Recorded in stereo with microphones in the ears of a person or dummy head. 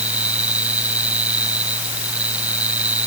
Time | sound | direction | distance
0.0 | a fan | 10° right (ahead or behind) | ?